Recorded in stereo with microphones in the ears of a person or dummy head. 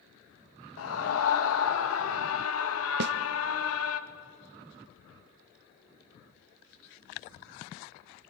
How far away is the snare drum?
About 0.7 m.